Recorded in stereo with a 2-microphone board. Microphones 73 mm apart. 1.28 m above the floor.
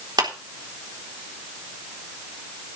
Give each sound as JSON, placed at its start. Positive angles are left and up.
{"t": 0.2, "sound": "a clap", "side_deg": -75, "distance_m": 4.0}